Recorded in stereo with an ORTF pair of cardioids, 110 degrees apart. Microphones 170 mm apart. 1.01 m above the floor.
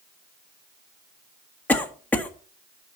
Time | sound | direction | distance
1.7 | a cough | 10° left | 1.3 m